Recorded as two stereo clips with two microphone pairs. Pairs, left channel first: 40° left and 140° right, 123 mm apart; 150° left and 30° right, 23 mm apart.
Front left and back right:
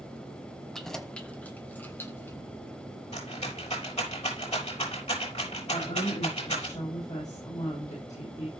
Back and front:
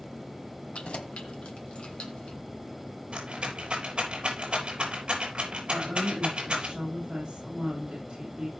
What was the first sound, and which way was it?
Keys jangling, 125° left.